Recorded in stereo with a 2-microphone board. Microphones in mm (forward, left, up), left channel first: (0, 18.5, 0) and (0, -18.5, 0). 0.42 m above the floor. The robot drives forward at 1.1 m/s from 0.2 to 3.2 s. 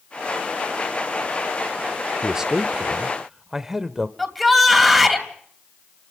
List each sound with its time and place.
2.2 s a man speaking: 15° right (ahead or behind), 0.8 m; by 4.1 s 10° right (ahead or behind), 1.0 m
4.2 s a shout: centre (ahead or behind), 3 m